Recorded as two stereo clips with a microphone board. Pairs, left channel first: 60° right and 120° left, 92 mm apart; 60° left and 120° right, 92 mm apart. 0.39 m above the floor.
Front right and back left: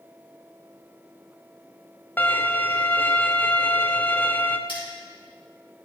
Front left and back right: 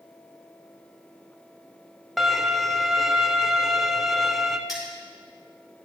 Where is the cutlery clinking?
35° right, 4 m.